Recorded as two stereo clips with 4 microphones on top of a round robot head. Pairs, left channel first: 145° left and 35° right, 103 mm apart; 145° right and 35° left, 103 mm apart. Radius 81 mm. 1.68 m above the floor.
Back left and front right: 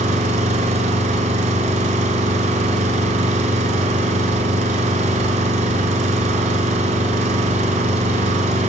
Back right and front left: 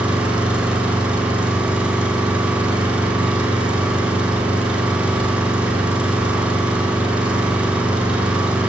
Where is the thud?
No thud in this recording.